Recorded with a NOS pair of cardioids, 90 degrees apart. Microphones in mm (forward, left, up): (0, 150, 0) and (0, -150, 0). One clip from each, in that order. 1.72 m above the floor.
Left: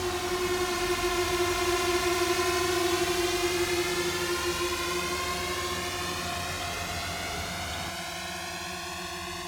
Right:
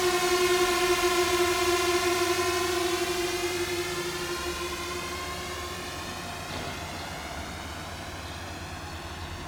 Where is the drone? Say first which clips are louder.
Right 5 dB; 40° right; by 9.5 s 55° left.